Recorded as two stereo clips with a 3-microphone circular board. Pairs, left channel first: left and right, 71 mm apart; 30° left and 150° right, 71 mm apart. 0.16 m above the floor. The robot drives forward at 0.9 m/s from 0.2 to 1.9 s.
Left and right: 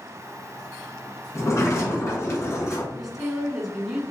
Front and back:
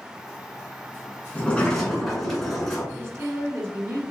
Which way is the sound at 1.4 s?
90° left.